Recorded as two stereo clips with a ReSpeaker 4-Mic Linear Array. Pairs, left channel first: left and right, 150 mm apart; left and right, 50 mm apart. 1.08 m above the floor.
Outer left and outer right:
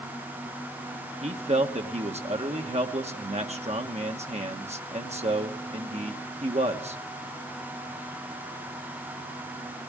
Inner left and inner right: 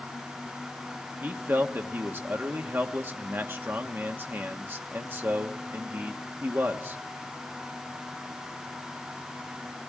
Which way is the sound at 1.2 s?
45° right (ahead or behind).